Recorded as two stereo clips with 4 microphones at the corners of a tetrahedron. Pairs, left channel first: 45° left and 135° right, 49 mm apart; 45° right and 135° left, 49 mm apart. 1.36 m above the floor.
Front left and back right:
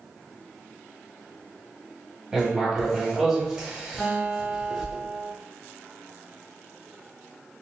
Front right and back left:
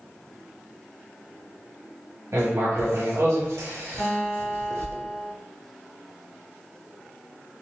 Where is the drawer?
I don't hear a drawer.